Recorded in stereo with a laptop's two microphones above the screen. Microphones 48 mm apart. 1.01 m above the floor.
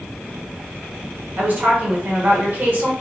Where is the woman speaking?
45° right (ahead or behind), 1.3 m.